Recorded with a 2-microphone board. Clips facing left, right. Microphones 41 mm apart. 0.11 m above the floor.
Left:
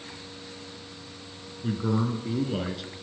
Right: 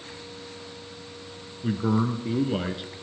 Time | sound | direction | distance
1.6 | a man speaking | 20° right (ahead or behind) | 1.1 m